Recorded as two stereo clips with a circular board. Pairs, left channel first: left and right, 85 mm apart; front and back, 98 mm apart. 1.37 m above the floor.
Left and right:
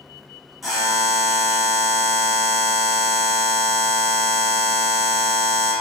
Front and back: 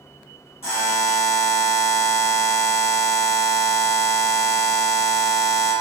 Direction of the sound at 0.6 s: Straight ahead.